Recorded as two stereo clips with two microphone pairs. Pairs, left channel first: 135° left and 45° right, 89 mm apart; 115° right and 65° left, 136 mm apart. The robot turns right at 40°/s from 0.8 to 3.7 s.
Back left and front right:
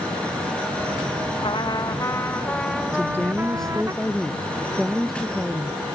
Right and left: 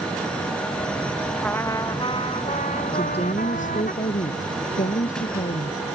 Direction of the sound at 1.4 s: 165° left.